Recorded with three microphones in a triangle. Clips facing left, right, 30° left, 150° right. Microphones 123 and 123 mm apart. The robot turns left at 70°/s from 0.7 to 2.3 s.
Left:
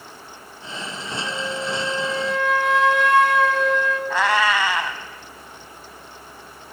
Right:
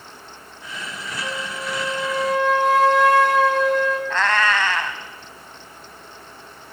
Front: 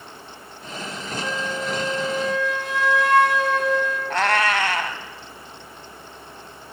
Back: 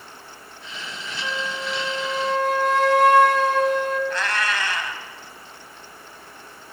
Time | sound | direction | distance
1.2 | a flute | 60° right | 0.9 m
4.1 | a cat meowing | 15° left | 0.5 m